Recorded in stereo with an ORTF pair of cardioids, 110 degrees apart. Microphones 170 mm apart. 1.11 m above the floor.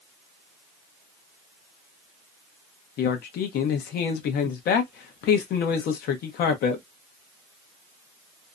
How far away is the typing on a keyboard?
I don't hear typing on a keyboard.